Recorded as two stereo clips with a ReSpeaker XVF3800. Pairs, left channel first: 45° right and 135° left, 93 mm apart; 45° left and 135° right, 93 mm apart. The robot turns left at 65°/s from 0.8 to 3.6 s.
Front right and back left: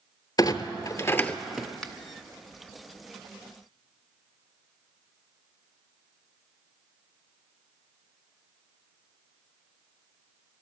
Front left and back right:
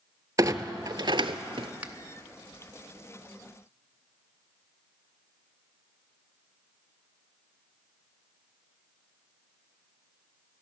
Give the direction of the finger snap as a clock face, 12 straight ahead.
4 o'clock.